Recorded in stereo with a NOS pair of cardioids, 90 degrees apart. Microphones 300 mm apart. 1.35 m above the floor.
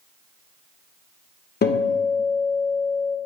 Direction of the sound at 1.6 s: 35° left.